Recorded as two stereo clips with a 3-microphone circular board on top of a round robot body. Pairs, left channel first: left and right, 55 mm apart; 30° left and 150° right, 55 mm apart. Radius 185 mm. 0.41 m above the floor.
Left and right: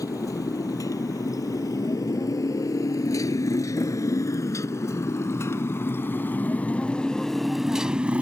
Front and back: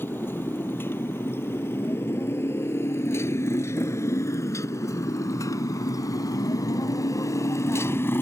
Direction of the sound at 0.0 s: 80° left.